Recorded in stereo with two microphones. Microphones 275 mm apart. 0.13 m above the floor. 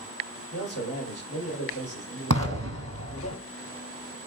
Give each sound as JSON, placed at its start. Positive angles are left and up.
{"t": 0.5, "sound": "a man speaking", "side_deg": 65, "distance_m": 2.5}
{"t": 2.3, "sound": "an explosion", "side_deg": -65, "distance_m": 1.2}